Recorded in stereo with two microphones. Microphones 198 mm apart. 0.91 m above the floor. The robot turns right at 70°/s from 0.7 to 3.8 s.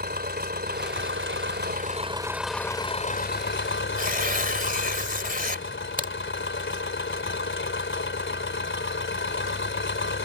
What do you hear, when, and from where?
0.0 s an engine running: 125° right; by 10.2 s 90° left
4.0 s tearing paper: 45° right (ahead or behind)
6.0 s a crack: 45° right (ahead or behind)